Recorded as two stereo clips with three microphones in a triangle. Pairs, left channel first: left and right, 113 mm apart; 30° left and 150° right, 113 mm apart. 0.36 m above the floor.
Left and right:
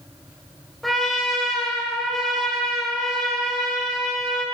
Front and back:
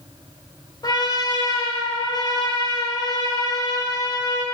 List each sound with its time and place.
0.8 s a trumpet: straight ahead, 1.4 m